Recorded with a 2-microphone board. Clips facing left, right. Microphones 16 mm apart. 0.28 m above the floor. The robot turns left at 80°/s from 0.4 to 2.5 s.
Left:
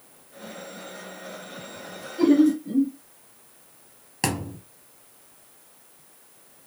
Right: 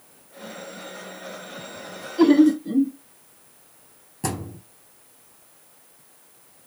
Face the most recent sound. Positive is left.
turn(degrees=80)